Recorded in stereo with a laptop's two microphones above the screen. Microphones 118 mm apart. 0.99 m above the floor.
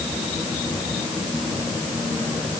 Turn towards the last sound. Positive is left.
No sound to turn to.